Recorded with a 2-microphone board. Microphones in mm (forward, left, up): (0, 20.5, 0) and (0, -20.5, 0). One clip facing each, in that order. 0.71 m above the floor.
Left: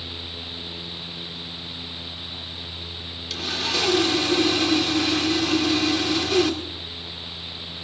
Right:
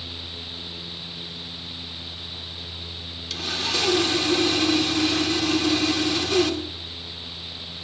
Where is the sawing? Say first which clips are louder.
Left 1 dB; 5° left (ahead or behind), 2.5 m.